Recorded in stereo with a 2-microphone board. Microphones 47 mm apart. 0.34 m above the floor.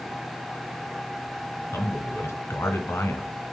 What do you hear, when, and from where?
1.7 s a man speaking: 70° left (ahead or behind), 2.5 m